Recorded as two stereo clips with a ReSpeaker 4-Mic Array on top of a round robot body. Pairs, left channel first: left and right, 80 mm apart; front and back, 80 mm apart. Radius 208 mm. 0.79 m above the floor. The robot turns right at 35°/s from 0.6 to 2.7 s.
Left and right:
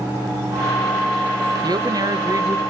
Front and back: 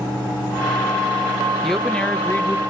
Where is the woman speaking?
90° right, 0.9 m; by 2.6 s 55° right, 0.9 m.